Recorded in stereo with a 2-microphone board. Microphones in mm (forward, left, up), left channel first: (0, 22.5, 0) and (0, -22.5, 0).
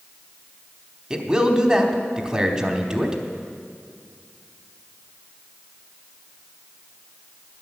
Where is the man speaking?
15° right (ahead or behind), 1.0 m.